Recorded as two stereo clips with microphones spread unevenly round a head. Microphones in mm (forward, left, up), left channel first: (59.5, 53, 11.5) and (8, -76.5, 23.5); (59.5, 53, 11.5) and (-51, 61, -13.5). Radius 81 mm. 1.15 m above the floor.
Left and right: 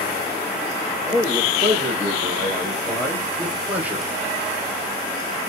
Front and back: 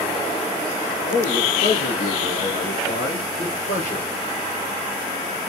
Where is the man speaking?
5° left, 3 m; by 4.1 s 40° right, 1.1 m.